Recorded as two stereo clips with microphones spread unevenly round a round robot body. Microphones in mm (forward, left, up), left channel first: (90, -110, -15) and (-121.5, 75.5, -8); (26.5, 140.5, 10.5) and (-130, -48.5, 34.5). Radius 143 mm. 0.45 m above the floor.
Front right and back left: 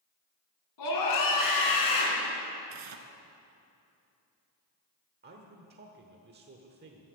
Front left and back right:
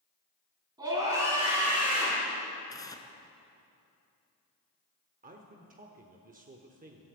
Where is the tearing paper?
125° left, 1.3 m.